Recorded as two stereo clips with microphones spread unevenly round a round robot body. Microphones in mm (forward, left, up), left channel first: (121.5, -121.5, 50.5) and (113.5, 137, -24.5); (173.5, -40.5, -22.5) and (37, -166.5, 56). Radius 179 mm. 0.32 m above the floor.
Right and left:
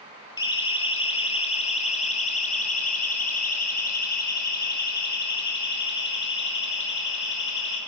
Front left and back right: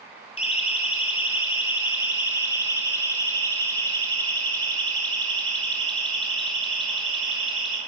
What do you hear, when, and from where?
0.4 s a siren: 15° right, 7 m; by 7.8 s 50° right, 10 m